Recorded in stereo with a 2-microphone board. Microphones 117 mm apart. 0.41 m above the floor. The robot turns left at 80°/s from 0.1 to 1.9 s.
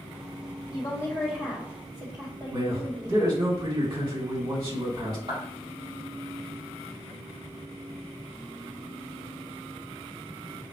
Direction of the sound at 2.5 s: 40° right (ahead or behind).